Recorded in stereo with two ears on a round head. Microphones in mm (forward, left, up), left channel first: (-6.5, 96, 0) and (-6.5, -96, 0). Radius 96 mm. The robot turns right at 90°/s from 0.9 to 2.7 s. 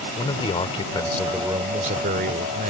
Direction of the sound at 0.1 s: 145° left.